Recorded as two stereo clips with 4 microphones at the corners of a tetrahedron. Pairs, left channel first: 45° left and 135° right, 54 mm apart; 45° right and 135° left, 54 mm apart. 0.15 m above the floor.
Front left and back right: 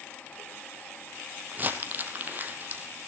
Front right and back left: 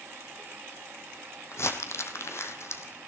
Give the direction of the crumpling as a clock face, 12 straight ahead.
3 o'clock.